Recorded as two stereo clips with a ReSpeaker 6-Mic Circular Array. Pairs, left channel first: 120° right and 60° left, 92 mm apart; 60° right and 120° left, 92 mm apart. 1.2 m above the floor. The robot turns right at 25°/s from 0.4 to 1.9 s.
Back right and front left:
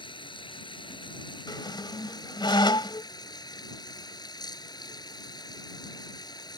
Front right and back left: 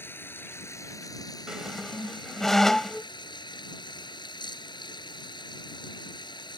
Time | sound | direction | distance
0.0 | running water | 125° right | ?
1.5 | a squeak | 155° right | ?